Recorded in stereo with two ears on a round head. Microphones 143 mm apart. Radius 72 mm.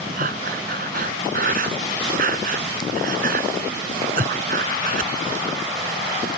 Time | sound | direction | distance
0.2 | breathing | 55° right (ahead or behind) | ?